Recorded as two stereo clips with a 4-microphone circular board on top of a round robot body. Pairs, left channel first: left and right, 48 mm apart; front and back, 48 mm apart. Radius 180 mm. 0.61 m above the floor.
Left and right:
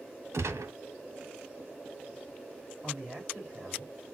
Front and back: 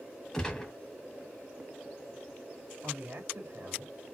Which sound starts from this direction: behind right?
A man speaking, at 2.8 s.